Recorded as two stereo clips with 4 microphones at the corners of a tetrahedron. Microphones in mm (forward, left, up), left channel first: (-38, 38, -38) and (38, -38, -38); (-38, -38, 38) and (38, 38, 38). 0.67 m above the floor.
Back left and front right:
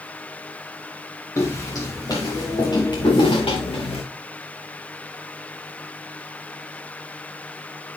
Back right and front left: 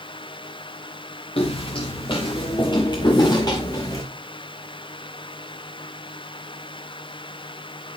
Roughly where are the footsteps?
Behind.